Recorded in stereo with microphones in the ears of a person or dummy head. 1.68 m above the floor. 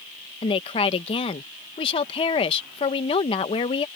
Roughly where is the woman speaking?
Left.